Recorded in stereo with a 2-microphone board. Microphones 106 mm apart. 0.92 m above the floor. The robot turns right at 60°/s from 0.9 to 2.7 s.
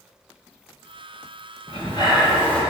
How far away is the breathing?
About 2 m.